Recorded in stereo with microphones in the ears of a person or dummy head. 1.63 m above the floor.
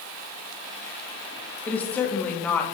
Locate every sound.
1.7 s a woman speaking: 15° left (ahead or behind), 1.3 m